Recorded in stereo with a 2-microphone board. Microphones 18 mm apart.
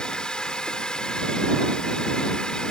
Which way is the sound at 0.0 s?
45° left (ahead or behind).